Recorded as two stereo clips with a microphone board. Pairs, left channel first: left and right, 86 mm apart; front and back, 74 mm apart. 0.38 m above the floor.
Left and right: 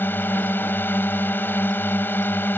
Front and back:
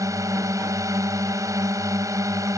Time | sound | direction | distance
0.0 | a drone | 150° left | ?